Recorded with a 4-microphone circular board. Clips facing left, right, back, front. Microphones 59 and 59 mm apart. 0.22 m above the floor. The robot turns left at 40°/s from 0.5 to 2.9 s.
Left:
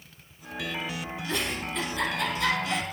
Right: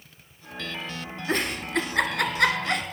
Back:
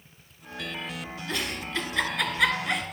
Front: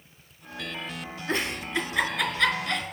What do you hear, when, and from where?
1.3 s a giggle: 50° right, 1.5 m; by 2.8 s 115° right, 1.5 m